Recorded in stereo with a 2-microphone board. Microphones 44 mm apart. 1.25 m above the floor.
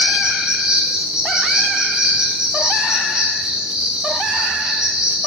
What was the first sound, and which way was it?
An insect, 15° right (ahead or behind).